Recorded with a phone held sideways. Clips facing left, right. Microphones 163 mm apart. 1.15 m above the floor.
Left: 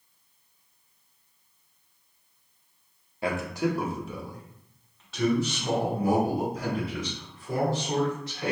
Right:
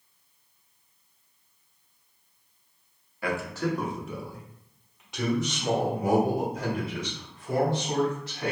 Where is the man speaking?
25° left (ahead or behind), 0.8 m; by 8.5 s 30° right (ahead or behind), 3.5 m.